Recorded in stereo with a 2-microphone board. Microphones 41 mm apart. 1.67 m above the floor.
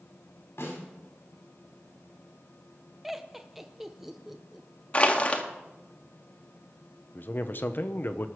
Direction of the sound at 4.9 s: 30° left (ahead or behind).